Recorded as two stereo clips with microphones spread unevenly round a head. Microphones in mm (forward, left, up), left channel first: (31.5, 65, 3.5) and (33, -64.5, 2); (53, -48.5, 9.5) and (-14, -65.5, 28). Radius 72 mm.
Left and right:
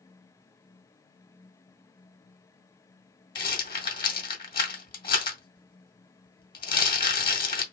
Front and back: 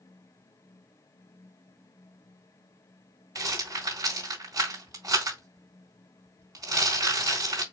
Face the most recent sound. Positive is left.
turn(degrees=145)